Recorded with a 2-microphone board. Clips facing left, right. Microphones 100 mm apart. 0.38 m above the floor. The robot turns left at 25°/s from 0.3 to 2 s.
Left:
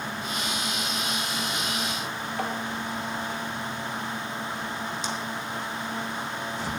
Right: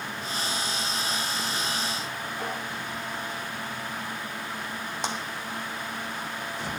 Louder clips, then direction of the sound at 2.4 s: Left 4 dB; 60° left (ahead or behind).